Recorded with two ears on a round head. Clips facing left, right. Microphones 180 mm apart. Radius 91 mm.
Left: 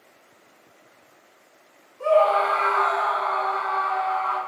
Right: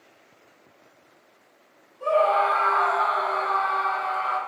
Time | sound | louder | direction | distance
2.0 | a scream | left 3 dB | 65° left (ahead or behind) | 1.2 m